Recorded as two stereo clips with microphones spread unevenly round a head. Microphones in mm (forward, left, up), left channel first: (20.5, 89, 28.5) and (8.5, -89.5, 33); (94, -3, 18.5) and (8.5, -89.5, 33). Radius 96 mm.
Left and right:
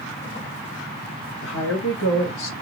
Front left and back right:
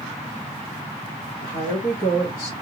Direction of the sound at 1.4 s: 75° left.